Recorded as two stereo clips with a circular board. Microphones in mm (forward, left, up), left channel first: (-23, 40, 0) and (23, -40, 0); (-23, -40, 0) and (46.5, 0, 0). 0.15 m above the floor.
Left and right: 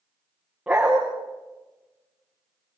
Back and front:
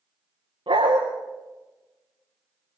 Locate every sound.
0.7 s a dog barking: 20° left, 6.5 m